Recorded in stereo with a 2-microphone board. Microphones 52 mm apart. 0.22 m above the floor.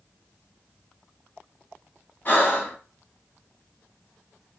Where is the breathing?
40° left (ahead or behind), 1.5 m.